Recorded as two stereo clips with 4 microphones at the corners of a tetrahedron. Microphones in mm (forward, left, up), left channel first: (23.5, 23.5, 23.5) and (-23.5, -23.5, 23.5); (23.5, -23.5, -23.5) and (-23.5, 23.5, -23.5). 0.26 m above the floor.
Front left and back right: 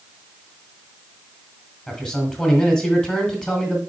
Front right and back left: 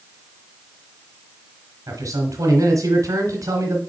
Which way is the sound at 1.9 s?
120° left.